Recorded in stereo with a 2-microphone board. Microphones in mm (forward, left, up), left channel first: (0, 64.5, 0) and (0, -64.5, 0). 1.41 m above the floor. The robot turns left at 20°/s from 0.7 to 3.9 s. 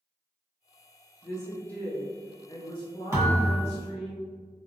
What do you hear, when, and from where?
1.2 s a woman speaking: 175° left, 1.0 m; by 4.1 s 125° left, 1.0 m
3.1 s a thud: 25° right (ahead or behind), 1.5 m; by 3.6 s 30° right (ahead or behind), 1.5 m